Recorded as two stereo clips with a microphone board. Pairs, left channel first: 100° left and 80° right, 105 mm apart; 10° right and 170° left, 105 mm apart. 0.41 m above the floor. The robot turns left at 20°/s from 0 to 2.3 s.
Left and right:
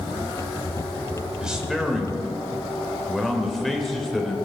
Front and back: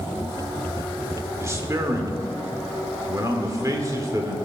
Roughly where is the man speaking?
Behind right.